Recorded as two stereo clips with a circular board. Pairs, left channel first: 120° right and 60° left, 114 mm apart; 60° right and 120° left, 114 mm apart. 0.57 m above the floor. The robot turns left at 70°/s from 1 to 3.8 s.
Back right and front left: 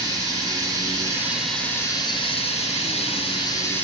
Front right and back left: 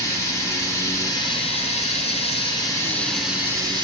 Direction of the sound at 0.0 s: Straight ahead.